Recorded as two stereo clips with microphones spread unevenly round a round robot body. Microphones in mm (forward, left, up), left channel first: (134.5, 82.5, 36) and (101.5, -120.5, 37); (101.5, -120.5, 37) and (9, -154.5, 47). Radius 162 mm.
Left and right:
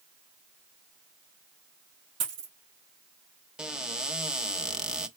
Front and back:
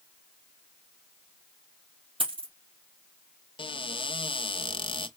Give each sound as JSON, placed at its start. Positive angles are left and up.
{"t": 2.2, "sound": "a dropped coin", "azimuth_deg": -125, "distance_m": 2.5}
{"t": 3.6, "sound": "a cupboard door", "azimuth_deg": -10, "distance_m": 1.0}